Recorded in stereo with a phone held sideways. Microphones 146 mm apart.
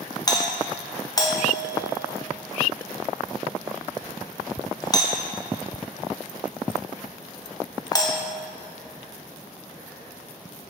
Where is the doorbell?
25° left (ahead or behind), 0.9 m.